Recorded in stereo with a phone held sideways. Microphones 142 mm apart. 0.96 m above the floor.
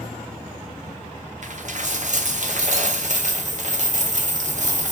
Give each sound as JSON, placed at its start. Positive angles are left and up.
{"t": 1.4, "sound": "a dropped coin", "side_deg": -60, "distance_m": 1.3}